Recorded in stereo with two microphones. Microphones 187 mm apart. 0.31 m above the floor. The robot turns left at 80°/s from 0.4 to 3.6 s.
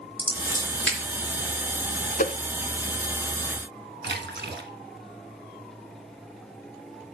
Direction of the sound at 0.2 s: 30° right (ahead or behind).